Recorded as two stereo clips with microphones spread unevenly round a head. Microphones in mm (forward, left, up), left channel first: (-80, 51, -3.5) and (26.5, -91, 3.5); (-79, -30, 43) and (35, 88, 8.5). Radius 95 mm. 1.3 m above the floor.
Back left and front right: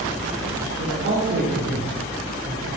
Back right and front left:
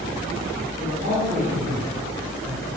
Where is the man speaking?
20° right, 5.5 m.